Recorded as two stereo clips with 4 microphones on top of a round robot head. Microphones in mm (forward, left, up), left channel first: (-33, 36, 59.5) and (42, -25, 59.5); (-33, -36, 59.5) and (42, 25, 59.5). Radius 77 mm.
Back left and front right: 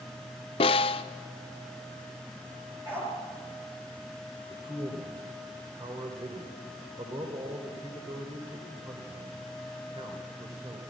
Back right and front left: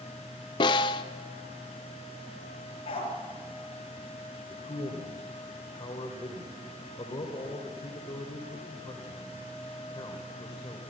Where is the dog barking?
110° right, 5 m.